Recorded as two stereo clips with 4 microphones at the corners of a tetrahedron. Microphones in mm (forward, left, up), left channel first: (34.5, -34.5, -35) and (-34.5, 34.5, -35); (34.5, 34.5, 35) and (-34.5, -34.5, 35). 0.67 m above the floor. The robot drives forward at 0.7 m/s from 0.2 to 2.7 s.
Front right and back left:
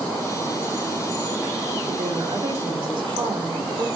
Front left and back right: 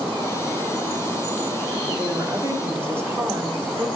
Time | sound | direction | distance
1.9 | a woman speaking | 150° left | 1.4 m